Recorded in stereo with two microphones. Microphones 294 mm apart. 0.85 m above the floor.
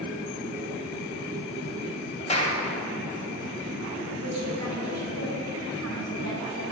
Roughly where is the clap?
Left.